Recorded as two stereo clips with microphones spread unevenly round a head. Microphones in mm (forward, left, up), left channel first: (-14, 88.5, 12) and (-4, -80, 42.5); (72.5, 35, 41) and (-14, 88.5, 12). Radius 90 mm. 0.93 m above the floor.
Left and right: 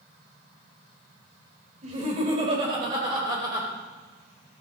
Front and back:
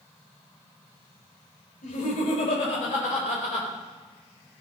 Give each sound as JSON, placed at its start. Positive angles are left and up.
{"t": 1.8, "sound": "laughter", "azimuth_deg": -30, "distance_m": 4.0}